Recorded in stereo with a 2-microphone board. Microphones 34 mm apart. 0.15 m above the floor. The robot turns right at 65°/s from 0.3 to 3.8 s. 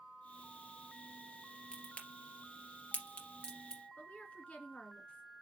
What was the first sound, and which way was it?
A crack, 20° left (ahead or behind).